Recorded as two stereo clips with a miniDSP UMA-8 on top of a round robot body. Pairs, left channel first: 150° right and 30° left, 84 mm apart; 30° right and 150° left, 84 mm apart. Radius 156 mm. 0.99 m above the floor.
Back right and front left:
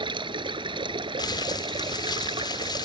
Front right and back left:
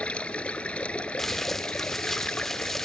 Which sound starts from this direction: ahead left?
Running water, at 0.0 s.